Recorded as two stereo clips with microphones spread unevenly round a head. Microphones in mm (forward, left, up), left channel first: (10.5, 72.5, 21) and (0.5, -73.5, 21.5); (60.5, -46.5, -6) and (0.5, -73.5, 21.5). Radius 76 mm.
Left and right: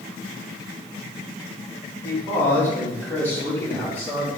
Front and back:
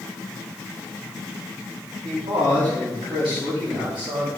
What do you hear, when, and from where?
2.0 s a man speaking: 160° left, 3 m; by 4.3 s 165° left, 4 m